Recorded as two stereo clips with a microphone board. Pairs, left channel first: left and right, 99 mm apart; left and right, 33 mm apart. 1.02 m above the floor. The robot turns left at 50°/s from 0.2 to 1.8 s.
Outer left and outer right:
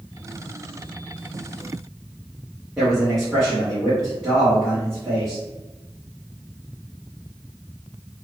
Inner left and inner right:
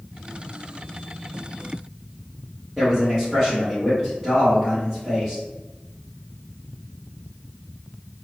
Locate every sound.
2.8 s a man speaking: 5° right (ahead or behind), 1.3 m